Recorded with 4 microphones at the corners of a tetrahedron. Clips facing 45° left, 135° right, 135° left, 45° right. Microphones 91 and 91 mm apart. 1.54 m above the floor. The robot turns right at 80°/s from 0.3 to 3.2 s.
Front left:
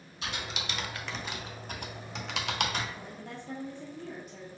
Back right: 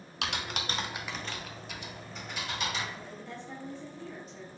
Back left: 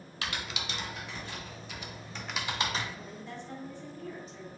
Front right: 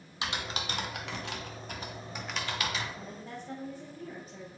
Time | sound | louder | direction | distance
0.2 | typing on a keyboard | back right 2 dB, front right 2 dB | 115° right | 0.5 m
3.0 | a woman speaking | even, even | 10° right | 0.9 m